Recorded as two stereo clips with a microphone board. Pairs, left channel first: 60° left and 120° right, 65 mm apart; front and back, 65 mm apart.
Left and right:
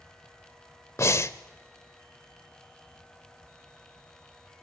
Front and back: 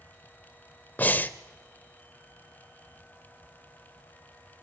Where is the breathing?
50° left, 0.8 m.